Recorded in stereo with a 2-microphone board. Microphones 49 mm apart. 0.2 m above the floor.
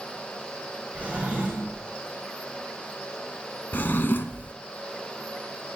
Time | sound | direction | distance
0.9 | a drawer | 25° right (ahead or behind) | 4.5 m
3.7 | a drawer | 45° left (ahead or behind) | 0.6 m